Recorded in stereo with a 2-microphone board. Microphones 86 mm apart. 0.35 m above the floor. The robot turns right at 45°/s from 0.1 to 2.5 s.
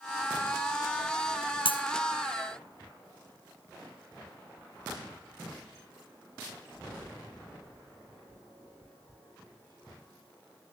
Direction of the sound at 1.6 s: 75° left (ahead or behind).